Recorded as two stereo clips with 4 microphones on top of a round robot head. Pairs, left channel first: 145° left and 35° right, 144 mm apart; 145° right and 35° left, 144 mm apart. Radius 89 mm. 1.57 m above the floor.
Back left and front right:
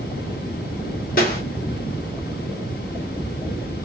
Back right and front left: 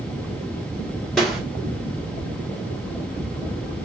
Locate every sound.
1.2 s a snare drum: 130° left, 1.3 m